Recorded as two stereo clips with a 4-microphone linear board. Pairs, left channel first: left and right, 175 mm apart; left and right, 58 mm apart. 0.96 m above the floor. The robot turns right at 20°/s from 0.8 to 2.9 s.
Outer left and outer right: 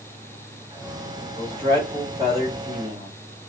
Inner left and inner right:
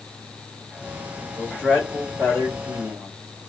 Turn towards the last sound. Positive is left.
turn(degrees=-125)